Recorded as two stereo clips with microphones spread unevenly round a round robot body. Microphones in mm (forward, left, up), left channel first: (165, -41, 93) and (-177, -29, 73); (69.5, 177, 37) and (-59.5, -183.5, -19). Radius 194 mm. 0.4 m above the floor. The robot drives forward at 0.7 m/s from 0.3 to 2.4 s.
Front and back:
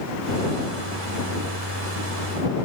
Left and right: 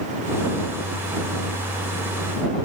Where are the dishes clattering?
No dishes clattering in this recording.